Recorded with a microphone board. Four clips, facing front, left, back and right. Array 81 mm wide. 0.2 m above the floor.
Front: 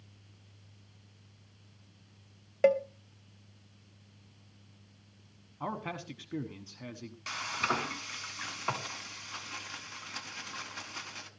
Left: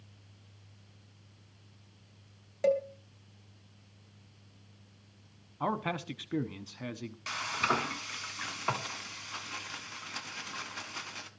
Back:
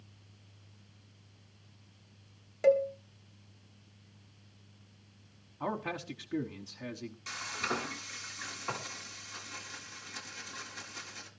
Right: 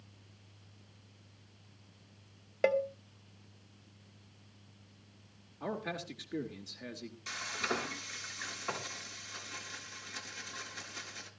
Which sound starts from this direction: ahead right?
A cowbell, at 2.6 s.